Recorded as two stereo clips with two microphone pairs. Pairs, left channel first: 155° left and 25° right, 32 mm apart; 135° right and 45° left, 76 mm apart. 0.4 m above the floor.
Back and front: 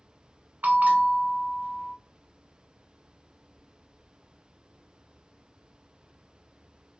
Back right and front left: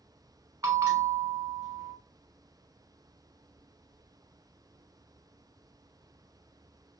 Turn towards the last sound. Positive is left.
turn(degrees=5)